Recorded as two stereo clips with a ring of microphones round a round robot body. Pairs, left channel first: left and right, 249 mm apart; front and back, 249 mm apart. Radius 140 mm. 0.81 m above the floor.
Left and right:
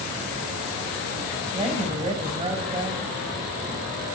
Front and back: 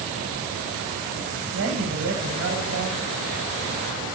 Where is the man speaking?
155° right, 4.5 m.